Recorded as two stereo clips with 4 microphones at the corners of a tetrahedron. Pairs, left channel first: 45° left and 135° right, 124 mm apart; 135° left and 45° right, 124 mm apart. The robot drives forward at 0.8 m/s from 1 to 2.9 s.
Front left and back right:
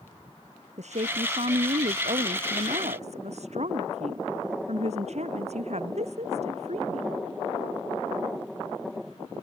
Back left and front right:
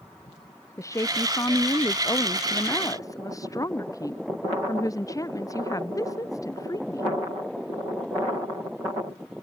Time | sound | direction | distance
0.8 | a woman speaking | 160° right | ?